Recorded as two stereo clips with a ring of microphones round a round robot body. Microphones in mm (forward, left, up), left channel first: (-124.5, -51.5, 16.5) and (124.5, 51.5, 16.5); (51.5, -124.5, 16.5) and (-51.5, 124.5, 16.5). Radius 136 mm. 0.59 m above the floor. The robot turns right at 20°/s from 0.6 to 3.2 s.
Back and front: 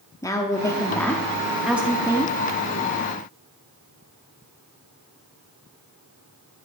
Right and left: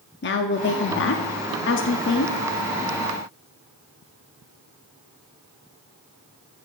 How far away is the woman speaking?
About 0.7 m.